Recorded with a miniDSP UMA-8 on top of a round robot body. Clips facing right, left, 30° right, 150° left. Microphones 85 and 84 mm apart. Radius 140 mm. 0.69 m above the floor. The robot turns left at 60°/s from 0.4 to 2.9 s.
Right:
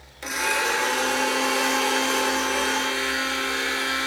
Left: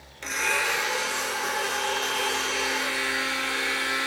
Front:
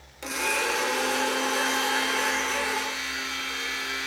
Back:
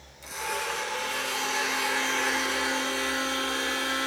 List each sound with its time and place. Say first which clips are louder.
0.2 s a blender: right 2 dB, front 4 dB; 10° right, 2.5 m; by 4.1 s 160° right, 2.5 m